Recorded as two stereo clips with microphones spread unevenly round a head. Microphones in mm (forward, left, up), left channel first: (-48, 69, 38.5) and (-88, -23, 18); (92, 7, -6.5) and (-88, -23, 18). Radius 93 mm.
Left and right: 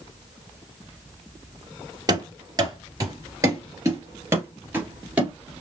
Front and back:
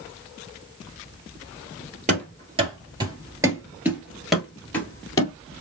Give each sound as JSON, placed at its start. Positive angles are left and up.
{"t": 2.1, "sound": "running footsteps", "azimuth_deg": -160, "distance_m": 2.0}